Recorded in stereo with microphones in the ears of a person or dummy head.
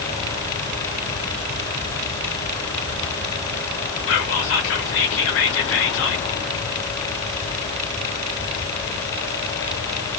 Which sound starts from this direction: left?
Whispering, at 4.1 s.